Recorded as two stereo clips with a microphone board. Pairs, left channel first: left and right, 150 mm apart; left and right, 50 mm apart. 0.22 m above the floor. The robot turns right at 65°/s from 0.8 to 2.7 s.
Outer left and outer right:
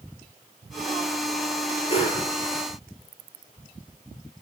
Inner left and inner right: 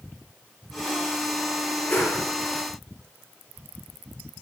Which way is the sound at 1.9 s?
35° left (ahead or behind).